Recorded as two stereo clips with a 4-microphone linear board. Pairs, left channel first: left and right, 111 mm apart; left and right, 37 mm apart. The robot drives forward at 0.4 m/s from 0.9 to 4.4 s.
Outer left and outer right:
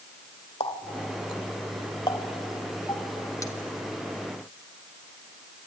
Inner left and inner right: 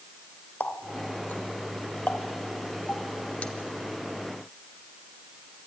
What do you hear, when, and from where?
0.6 s a running tap: 55° left (ahead or behind), 1.0 m; by 3.5 s 30° left (ahead or behind), 1.6 m